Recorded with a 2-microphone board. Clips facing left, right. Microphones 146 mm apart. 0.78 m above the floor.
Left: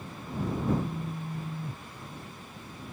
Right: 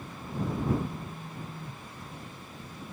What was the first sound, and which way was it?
A phone buzzing, 15° left (ahead or behind).